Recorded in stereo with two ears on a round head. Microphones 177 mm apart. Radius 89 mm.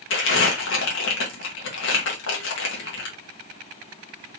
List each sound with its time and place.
0.1 s crumpling: 70° left (ahead or behind), 1.6 m